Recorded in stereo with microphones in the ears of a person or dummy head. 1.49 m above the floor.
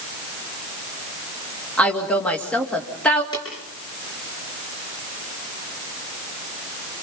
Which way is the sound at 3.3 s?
20° left (ahead or behind).